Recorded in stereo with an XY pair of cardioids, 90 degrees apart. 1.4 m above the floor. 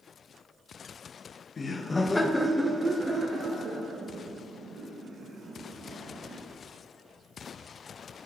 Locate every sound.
1.6 s laughter: 45° left, 0.7 m; by 6.4 s 65° right, 2.5 m